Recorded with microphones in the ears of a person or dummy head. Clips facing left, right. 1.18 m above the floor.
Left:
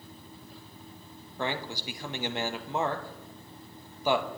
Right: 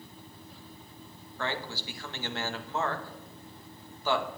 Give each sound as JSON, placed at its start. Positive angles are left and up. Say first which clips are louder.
{"t": 1.4, "sound": "a man speaking", "louder": "left 2 dB", "side_deg": 15, "distance_m": 0.9}